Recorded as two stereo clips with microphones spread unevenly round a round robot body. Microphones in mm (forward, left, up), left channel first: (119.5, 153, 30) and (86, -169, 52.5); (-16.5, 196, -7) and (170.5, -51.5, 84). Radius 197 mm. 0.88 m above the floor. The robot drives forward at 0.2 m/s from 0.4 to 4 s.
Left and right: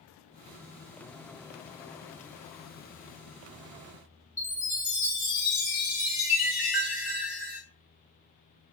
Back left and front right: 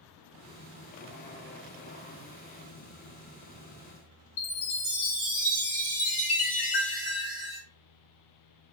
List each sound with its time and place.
4.4 s a chime: 175° left, 1.5 m